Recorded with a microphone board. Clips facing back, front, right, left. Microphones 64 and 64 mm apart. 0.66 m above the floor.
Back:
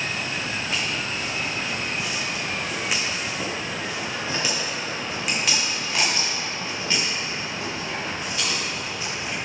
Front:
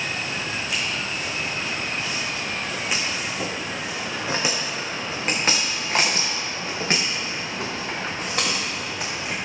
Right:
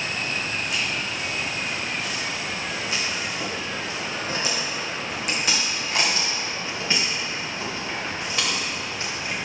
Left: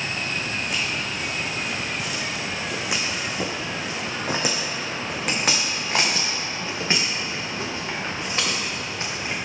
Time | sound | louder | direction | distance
0.5 | footsteps | even, even | 130° left | 2.5 m